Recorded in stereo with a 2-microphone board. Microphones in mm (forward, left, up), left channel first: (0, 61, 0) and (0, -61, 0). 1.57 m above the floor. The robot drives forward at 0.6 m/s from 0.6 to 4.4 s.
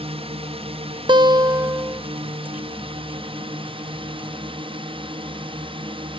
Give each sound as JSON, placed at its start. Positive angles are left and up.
{"t": 0.0, "sound": "a drone", "side_deg": -55}
{"t": 1.1, "sound": "a guitar", "side_deg": -40}